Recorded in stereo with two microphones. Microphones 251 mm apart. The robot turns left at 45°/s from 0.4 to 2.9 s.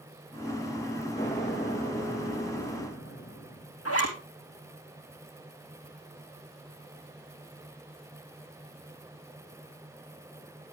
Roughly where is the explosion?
Behind left.